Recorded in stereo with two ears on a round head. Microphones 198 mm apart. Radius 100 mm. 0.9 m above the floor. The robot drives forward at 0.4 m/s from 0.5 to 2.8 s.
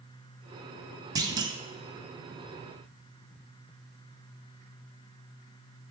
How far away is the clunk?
About 0.6 m.